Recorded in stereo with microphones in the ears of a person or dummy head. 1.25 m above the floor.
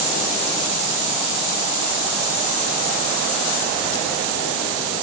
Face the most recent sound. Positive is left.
No sound to turn to.